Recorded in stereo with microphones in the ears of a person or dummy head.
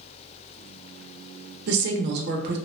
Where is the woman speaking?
60° right (ahead or behind), 0.5 m.